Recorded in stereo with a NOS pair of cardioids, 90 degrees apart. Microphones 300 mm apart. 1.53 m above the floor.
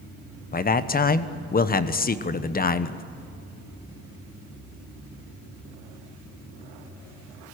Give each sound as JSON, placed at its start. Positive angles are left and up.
{"t": 0.5, "sound": "a man speaking", "azimuth_deg": 30, "distance_m": 1.1}